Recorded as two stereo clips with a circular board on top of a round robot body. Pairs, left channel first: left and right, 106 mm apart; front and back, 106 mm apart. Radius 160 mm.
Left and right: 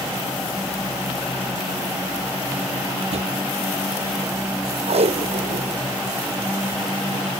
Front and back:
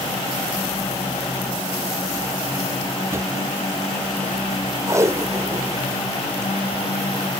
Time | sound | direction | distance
3.1 | a drawer | 115° right | ?
4.9 | tape being pulled | 115° right | ?